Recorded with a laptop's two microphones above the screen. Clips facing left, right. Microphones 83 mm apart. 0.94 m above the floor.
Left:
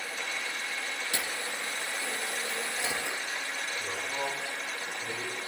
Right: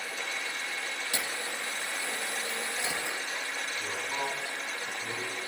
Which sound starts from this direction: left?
A camera shutter, at 1.1 s.